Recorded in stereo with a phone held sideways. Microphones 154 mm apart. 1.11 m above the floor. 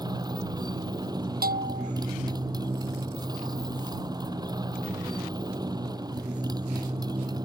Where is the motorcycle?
25° right (ahead or behind).